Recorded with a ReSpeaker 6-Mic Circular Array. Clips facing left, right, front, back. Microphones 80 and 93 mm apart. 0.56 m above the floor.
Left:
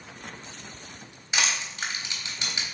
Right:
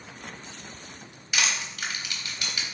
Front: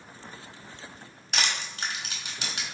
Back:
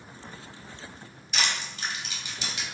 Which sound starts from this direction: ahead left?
Crushing, at 1.3 s.